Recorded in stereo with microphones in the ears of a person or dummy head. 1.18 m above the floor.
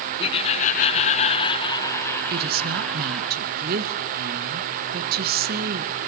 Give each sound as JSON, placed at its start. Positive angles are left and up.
{"t": 0.2, "sound": "laughter", "side_deg": 25, "distance_m": 0.8}
{"t": 2.3, "sound": "a woman speaking", "side_deg": -50, "distance_m": 1.2}